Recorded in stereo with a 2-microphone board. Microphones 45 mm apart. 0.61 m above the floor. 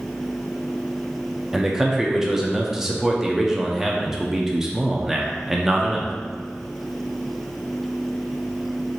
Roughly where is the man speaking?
Centre.